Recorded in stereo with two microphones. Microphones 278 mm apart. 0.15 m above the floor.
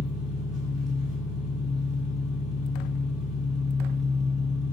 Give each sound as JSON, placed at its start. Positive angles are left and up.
{"t": 0.0, "sound": "an engine running", "side_deg": -45, "distance_m": 1.3}